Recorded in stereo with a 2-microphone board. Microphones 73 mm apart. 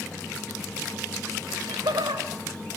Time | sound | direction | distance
1.5 | laughter | 75° right (ahead or behind) | 3.5 m